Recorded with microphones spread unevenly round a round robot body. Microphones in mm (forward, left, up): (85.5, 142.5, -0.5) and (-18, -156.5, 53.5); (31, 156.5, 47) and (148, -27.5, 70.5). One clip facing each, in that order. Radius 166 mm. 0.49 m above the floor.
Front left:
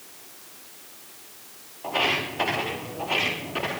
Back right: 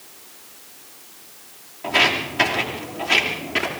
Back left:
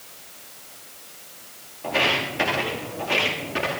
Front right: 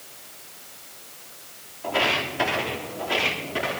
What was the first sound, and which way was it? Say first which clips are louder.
Footsteps: back right 4 dB, back left 1 dB; 160° right.